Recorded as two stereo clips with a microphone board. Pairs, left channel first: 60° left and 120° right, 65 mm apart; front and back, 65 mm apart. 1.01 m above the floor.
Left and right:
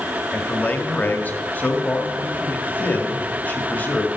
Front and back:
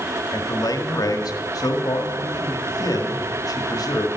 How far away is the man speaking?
About 1.9 m.